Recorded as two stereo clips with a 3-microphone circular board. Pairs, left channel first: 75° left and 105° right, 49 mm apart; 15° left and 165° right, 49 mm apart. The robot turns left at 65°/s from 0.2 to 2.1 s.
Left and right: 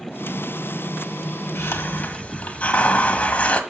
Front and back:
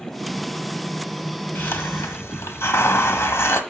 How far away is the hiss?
About 1.2 m.